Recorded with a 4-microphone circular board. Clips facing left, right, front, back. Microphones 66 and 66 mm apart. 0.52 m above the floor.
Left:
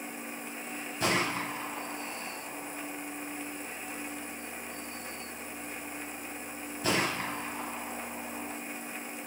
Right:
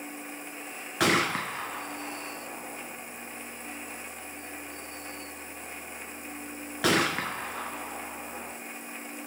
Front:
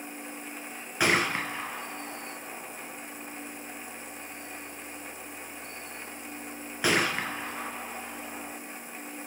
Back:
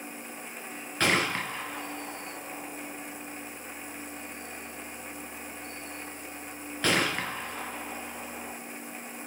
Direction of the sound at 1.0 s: 80° right.